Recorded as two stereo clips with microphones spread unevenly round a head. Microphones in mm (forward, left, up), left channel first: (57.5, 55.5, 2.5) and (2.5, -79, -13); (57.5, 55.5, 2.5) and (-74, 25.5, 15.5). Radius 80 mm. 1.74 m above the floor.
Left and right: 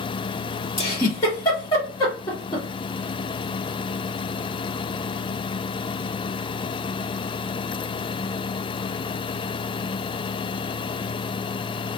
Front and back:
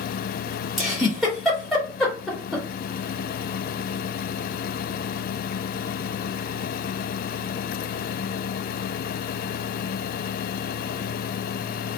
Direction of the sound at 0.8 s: 110° left.